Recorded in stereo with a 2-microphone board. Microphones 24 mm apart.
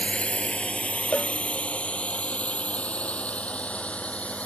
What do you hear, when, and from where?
0.0 s a drone: 55° left (ahead or behind); by 4.5 s 70° left (ahead or behind)
1.1 s a cowbell: 55° left (ahead or behind)